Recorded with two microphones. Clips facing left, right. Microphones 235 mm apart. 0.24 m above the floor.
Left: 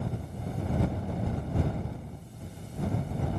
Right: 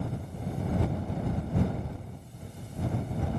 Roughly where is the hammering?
I don't hear hammering.